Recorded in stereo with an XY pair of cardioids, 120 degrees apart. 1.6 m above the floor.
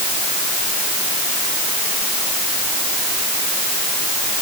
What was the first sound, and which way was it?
Only background noise.